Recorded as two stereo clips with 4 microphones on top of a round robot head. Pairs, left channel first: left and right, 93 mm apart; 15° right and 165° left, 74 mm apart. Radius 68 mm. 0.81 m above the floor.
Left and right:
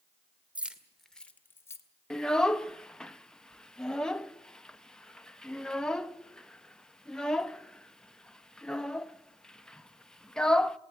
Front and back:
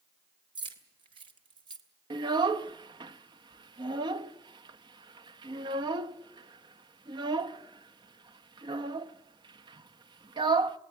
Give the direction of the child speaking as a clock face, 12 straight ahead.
6 o'clock.